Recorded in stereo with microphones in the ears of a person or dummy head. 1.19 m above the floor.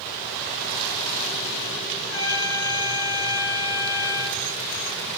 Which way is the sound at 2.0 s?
80° left.